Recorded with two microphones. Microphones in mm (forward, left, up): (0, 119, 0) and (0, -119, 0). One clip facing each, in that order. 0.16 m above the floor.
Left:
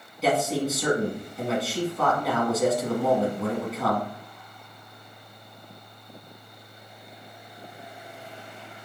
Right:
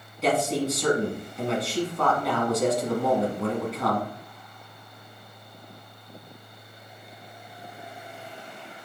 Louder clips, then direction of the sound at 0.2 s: Even; centre (ahead or behind).